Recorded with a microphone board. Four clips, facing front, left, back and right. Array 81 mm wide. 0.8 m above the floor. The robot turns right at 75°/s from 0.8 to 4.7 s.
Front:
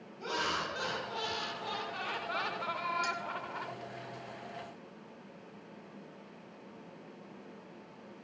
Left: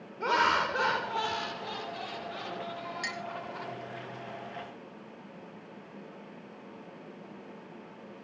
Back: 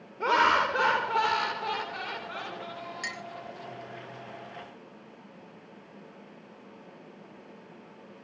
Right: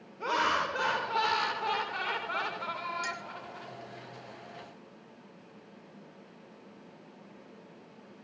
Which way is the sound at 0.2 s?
Straight behind.